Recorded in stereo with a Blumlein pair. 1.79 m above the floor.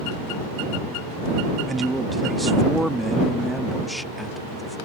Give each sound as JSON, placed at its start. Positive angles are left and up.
{"t": 1.7, "sound": "a man speaking", "azimuth_deg": -10}